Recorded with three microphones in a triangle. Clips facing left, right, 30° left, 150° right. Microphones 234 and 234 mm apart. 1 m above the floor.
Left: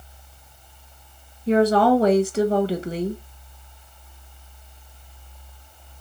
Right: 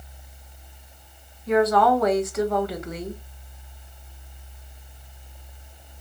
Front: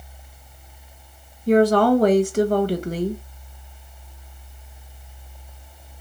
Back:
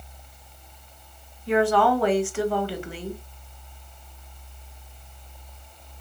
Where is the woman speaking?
50° left, 0.7 m.